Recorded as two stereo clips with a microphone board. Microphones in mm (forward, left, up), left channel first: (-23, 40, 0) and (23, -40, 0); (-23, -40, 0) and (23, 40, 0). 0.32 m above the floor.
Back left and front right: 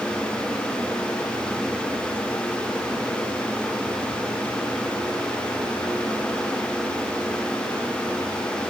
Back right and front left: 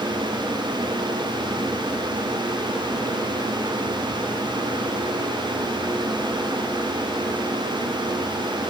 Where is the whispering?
I don't hear whispering.